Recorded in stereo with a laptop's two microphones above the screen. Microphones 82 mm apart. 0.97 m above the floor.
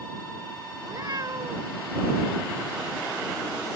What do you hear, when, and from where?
0.8 s a cat meowing: 55° right (ahead or behind)